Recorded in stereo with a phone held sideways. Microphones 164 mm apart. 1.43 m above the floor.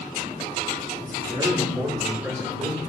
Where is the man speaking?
25° right (ahead or behind), 2.5 m; by 2.8 s 10° right (ahead or behind), 3.5 m.